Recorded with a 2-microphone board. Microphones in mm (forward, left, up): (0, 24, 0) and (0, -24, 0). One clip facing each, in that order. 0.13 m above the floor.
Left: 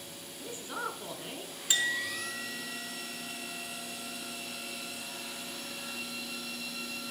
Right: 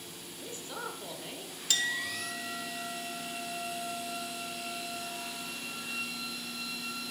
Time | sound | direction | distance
0.4 | a man speaking | 20° left (ahead or behind) | 1.1 m
1.7 | a clink | 20° left (ahead or behind) | 0.8 m